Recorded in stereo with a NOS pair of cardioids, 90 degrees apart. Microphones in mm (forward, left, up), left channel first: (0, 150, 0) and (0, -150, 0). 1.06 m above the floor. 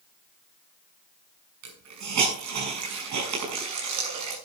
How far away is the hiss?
About 6.5 m.